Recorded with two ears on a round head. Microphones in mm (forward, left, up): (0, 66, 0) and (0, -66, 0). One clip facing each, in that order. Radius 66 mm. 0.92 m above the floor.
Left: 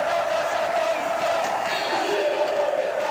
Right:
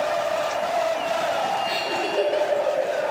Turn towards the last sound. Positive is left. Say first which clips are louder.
# left 1 dB
turn(degrees=-45)  # may be behind; listen again after turning